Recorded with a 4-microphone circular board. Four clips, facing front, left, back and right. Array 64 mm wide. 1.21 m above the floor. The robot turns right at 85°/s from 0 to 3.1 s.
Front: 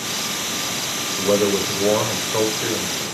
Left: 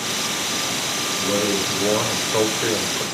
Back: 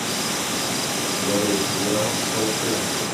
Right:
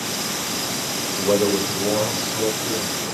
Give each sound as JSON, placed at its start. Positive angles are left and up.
{"t": 1.2, "sound": "a man speaking", "azimuth_deg": -50, "distance_m": 5.0}